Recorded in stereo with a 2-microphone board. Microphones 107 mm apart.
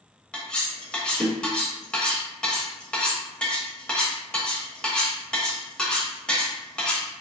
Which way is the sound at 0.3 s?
10° left (ahead or behind).